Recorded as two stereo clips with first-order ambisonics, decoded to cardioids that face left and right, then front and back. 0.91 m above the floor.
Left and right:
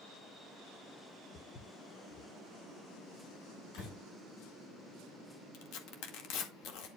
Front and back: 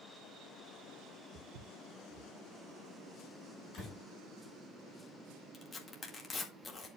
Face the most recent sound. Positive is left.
turn(degrees=75)